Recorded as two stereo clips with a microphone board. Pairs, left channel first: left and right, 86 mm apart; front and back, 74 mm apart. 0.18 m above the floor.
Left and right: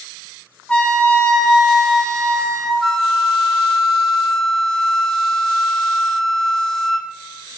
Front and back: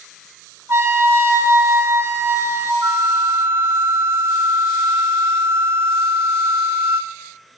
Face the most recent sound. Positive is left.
turn(degrees=170)